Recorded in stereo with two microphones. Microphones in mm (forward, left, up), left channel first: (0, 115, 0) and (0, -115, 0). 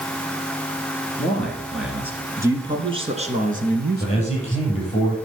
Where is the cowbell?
I don't hear a cowbell.